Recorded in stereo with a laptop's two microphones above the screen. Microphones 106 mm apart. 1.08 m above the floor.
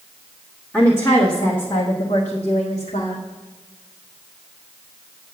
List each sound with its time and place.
0.7 s a woman speaking: 15° left (ahead or behind), 1.5 m; by 3.2 s 80° left, 1.8 m